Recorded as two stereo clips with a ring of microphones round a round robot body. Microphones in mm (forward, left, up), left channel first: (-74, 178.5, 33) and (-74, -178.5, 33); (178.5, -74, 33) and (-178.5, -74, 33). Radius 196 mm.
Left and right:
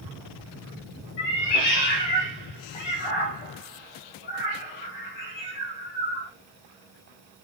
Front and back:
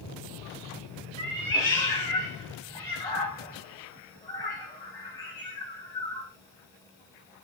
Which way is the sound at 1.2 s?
80° left.